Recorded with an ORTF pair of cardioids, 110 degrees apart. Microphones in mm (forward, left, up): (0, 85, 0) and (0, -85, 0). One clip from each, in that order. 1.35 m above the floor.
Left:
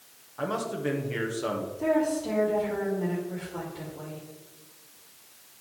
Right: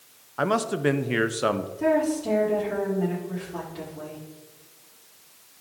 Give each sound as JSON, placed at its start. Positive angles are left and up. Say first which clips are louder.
{"t": 0.4, "sound": "a man speaking", "louder": "right 6 dB", "azimuth_deg": -45, "distance_m": 0.8}
{"t": 1.8, "sound": "a woman speaking", "louder": "right 2 dB", "azimuth_deg": -25, "distance_m": 3.5}